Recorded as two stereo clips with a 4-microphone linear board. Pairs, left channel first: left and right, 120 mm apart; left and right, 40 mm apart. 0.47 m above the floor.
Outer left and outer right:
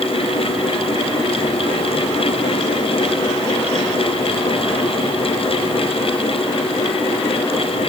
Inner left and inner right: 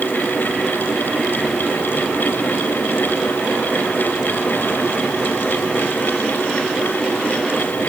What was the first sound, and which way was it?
Only background noise.